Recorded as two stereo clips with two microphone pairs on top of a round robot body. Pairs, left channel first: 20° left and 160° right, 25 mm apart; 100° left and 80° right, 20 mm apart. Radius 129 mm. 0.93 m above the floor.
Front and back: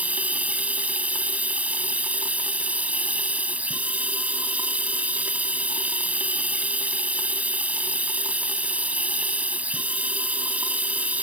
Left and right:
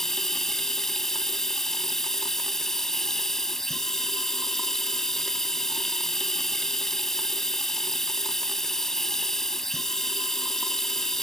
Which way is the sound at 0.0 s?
170° left.